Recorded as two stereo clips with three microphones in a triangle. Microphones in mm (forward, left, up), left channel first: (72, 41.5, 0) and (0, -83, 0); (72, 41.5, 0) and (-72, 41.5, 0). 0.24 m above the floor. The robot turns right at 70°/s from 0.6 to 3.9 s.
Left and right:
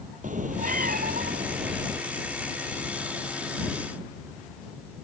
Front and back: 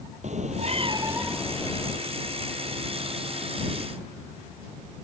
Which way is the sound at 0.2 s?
145° right.